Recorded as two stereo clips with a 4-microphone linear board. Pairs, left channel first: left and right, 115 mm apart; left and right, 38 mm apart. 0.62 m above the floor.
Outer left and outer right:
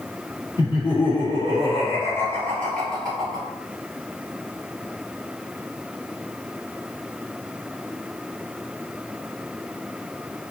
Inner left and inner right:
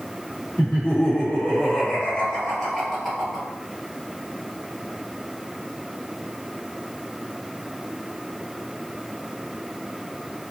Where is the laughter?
40° left (ahead or behind), 1.5 m; by 3.5 s centre (ahead or behind), 1.7 m.